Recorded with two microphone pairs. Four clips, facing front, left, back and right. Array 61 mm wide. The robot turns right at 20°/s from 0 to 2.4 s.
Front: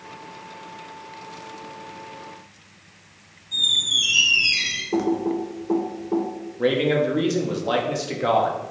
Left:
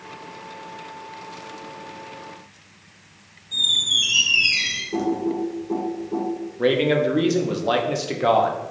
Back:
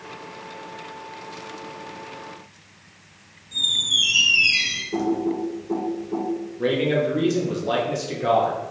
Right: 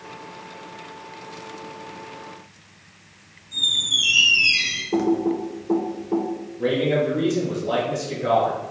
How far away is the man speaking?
About 0.6 m.